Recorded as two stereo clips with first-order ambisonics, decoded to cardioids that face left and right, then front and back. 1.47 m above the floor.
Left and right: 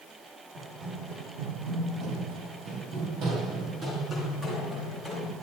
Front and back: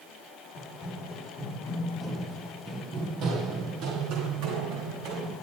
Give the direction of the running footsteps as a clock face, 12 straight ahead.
2 o'clock.